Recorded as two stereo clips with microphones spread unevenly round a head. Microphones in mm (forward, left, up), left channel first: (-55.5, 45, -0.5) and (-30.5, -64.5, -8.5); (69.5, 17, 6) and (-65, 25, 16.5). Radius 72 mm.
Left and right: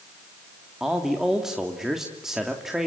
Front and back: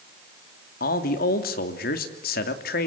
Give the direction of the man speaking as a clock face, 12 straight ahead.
12 o'clock.